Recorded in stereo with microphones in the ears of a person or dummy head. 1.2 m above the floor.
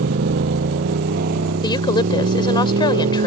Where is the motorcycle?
60° right (ahead or behind); by 3.3 s 50° right (ahead or behind).